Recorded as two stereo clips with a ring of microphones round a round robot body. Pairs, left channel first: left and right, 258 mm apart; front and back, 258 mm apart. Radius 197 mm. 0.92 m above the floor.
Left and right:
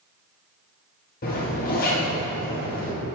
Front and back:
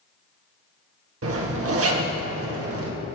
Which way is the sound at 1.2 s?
150° left.